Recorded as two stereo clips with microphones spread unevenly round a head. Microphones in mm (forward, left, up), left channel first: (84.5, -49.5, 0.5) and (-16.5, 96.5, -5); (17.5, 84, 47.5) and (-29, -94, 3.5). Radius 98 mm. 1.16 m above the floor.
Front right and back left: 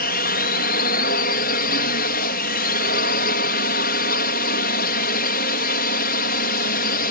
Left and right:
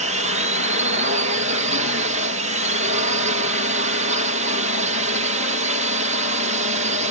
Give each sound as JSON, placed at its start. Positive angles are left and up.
{"t": 0.0, "sound": "a drone", "azimuth_deg": -85}